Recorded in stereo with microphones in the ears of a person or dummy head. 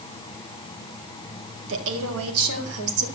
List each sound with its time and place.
1.7 s a woman speaking: 70° right (ahead or behind), 2 m; by 3.1 s 90° right, 2.5 m